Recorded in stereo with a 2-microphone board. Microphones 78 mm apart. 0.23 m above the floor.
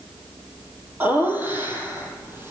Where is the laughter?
25° right (ahead or behind), 7 m; by 2.5 s 30° right (ahead or behind), 6.5 m.